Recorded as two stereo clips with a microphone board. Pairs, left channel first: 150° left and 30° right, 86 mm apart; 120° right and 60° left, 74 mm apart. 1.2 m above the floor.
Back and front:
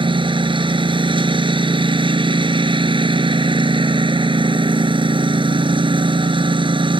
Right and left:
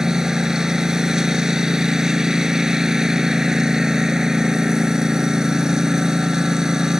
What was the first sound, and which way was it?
A lawn mower, 25° right.